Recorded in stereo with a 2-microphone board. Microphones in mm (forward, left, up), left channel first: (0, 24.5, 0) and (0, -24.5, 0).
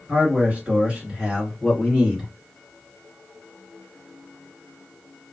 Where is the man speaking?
30° right (ahead or behind), 1.8 m; by 2.3 s 5° right (ahead or behind), 2 m.